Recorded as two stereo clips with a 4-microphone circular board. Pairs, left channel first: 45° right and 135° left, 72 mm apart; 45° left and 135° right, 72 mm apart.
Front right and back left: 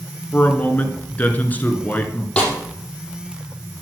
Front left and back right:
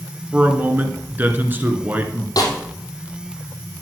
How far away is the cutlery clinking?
I don't hear cutlery clinking.